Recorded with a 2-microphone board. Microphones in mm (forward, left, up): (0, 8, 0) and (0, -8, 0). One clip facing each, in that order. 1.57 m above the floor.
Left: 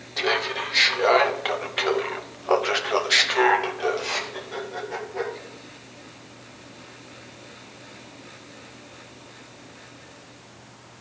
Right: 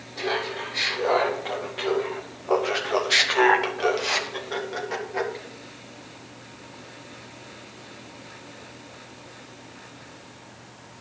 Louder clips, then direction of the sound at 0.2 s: Left 4 dB; 75° left (ahead or behind).